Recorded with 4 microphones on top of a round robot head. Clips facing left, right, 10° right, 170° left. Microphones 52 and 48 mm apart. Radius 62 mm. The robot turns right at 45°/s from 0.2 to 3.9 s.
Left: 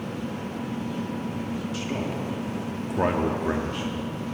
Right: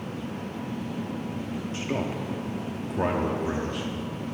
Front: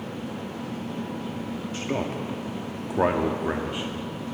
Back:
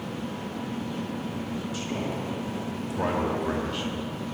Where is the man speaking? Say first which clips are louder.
Right 3 dB, front 5 dB; 40° right, 0.9 m; by 3.9 s 55° left, 0.9 m.